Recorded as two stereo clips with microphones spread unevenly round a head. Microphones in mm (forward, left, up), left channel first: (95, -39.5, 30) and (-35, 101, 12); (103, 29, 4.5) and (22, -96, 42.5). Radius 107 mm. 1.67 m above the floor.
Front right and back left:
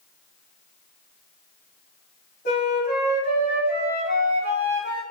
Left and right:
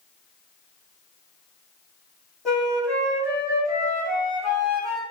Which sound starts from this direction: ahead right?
A flute, at 2.5 s.